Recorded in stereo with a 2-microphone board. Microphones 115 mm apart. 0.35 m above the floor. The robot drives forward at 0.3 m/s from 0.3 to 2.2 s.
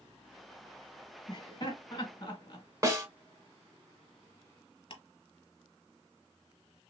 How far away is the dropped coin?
No dropped coin in this recording.